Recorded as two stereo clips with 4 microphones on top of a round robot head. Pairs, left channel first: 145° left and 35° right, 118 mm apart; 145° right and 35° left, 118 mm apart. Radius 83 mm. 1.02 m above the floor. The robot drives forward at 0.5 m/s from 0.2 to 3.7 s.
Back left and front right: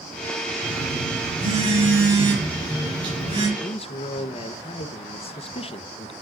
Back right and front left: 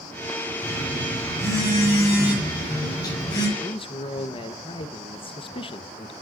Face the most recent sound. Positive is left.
turn(degrees=175)